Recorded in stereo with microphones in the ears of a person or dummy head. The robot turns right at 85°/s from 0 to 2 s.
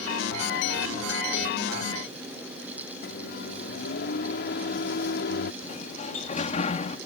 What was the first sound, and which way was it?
A microwave, 60° left (ahead or behind).